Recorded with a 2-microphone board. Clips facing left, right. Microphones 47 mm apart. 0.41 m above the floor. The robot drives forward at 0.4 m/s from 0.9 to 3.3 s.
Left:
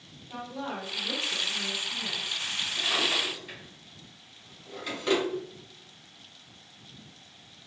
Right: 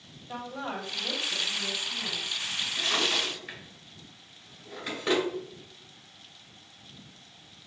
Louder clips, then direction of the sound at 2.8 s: Even; 15° right (ahead or behind).